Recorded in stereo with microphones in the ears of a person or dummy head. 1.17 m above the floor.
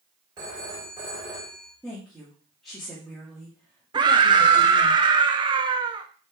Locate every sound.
0.4 s a phone ringing: 25° right (ahead or behind), 2.5 m
1.8 s a woman speaking: 5° left (ahead or behind), 2.5 m
3.9 s a scream: 20° right (ahead or behind), 0.9 m